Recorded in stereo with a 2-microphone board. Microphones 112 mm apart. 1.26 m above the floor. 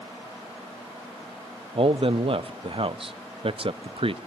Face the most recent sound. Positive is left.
turn(degrees=-55)  # may be behind; listen again after turning